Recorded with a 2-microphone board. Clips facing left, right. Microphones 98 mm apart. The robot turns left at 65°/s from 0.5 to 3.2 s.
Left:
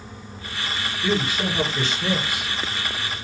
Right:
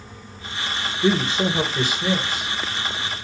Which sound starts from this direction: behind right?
A man speaking, at 1.0 s.